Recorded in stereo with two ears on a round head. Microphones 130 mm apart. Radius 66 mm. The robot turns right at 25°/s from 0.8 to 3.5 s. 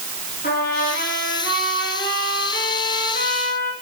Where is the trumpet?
60° left, 5.5 m; by 3.7 s 130° left, 5.5 m.